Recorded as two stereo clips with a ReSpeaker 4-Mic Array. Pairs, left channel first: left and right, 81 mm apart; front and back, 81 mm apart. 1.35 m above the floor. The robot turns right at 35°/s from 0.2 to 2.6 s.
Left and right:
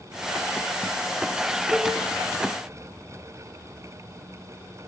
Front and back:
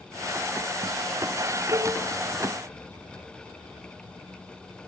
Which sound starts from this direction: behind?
A cowbell, at 1.7 s.